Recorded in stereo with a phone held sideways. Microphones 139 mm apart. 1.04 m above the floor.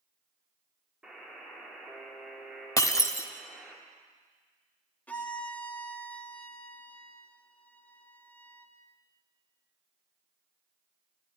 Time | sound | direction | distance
1.0 | a buzzer | 5° right (ahead or behind) | 3.5 m
2.8 | breaking glass | 25° left (ahead or behind) | 0.9 m
5.1 | a violin | 10° left (ahead or behind) | 1.1 m